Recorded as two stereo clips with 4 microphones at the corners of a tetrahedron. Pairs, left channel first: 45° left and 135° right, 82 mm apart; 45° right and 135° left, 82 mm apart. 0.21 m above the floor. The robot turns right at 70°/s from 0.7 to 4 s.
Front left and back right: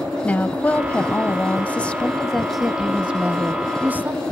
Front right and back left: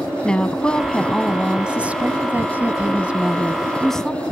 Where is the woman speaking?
15° left, 1.0 m; by 4.2 s 115° right, 1.0 m.